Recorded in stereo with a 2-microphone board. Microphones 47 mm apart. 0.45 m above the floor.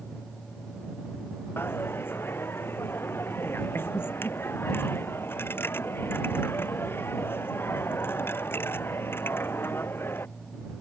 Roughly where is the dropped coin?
Left.